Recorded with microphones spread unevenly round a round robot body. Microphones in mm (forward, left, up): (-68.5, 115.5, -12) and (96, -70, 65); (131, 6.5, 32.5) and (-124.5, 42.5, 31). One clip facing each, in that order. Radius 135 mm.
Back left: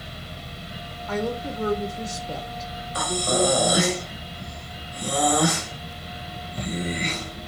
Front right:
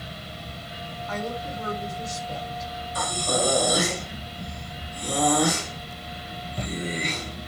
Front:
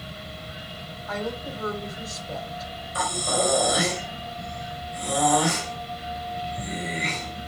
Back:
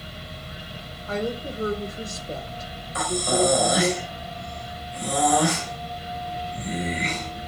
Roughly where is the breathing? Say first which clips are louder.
Back left 4 dB, back 5 dB; behind.